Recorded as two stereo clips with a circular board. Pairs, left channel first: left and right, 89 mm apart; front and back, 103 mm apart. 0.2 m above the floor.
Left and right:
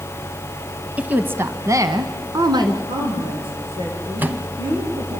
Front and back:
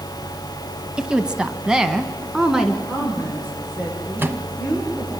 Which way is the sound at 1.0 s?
115° right.